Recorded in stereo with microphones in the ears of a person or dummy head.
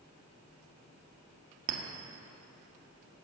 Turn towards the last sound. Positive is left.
turn(degrees=-50)  # may be behind; listen again after turning